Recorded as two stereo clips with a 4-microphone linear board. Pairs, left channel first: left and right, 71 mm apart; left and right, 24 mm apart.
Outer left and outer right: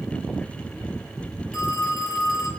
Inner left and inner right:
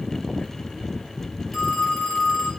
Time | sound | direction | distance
1.5 | a phone ringing | 5° right (ahead or behind) | 7 m